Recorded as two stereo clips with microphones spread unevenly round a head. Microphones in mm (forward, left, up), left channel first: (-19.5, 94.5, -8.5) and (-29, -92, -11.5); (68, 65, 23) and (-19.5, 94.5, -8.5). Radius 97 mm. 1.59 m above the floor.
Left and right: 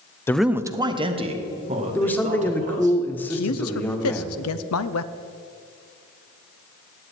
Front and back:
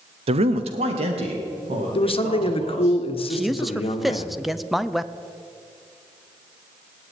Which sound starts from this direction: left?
A man speaking, at 3.3 s.